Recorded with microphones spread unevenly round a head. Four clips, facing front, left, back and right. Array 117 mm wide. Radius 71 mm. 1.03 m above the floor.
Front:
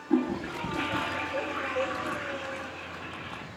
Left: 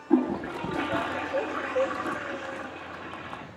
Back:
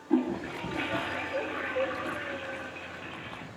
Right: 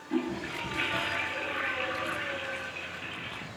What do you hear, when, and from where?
0.1 s a toilet flushing: 95° left, 1.6 m